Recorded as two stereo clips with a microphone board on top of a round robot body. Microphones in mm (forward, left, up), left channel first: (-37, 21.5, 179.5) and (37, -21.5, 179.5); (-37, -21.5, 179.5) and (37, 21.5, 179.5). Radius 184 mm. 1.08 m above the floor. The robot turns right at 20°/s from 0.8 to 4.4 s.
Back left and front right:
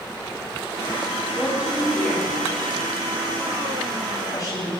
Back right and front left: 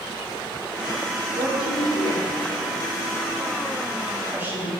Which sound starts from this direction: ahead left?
A woman speaking, at 1.4 s.